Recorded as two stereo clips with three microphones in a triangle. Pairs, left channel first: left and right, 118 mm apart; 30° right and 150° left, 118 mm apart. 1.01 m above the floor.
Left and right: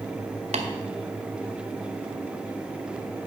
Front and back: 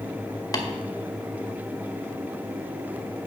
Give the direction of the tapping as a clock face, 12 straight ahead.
3 o'clock.